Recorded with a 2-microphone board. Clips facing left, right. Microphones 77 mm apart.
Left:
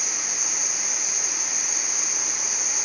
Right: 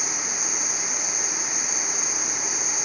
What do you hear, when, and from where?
0.0 s an insect: 35° right (ahead or behind), 1.2 m